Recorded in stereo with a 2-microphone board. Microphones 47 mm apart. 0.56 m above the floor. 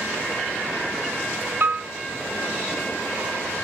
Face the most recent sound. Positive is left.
turn(degrees=-50)  # may be behind; listen again after turning